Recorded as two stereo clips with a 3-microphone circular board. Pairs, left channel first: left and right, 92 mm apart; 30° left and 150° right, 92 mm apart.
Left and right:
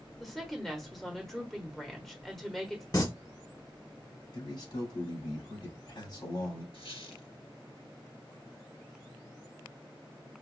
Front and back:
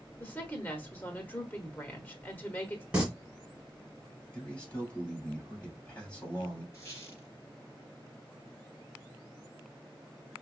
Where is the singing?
135° left, 1.6 m.